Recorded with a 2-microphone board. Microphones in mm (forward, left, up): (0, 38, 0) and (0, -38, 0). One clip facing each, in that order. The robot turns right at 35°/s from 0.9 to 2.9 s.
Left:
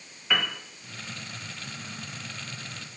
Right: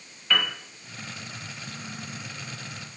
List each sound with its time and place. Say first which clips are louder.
0.3 s a piano: right 1 dB; 10° left (ahead or behind), 0.7 m